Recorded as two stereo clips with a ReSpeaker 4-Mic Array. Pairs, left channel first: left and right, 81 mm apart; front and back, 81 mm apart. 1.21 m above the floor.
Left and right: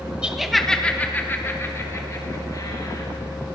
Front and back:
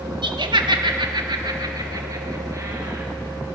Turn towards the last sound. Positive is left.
turn(degrees=125)